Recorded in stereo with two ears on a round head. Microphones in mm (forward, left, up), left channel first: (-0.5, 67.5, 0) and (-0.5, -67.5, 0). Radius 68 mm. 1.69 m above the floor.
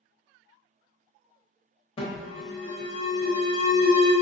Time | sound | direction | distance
2.0 | an alarm | 35° left (ahead or behind) | 1.1 m